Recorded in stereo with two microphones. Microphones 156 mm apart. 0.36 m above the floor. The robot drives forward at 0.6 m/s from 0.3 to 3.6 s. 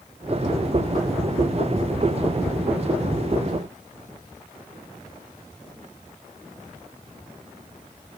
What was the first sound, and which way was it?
Only background noise.